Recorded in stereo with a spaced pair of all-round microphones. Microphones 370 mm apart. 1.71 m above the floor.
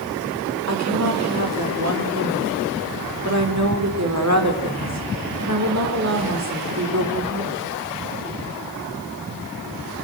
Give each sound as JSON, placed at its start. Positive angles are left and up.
{"t": 0.7, "sound": "a woman speaking", "side_deg": -45, "distance_m": 5.0}